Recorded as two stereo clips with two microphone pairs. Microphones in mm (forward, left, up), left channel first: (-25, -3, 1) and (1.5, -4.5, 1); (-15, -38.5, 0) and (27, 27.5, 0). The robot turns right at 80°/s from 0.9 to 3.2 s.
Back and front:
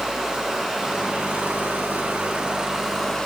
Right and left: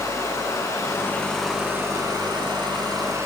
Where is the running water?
75° right, 6.5 m; by 3.3 s 110° left, 6.5 m.